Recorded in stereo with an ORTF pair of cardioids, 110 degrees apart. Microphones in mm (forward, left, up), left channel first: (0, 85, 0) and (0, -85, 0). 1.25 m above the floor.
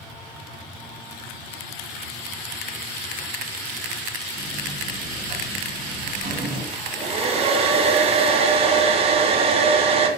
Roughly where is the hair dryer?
Ahead right.